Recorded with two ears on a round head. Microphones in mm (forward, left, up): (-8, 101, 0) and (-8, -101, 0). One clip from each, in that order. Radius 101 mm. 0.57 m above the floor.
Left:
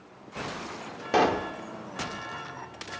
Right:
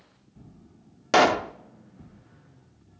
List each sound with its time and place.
1.1 s a pop: 45° right (ahead or behind), 0.7 m